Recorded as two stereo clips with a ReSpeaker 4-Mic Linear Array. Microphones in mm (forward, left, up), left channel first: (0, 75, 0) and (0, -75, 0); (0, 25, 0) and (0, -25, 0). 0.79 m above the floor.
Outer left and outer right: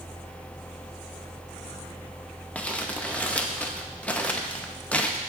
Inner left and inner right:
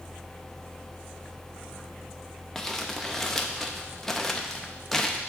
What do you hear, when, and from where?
2.5 s crumpling: 10° left (ahead or behind), 0.5 m